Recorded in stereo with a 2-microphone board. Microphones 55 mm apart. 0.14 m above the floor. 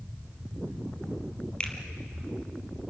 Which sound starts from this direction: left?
A finger snap, at 1.6 s.